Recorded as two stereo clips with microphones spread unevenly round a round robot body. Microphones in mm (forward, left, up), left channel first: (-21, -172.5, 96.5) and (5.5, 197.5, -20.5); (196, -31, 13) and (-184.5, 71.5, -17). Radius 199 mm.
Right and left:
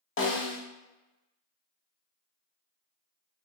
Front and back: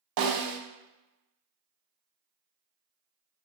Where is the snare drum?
160° right, 0.7 m.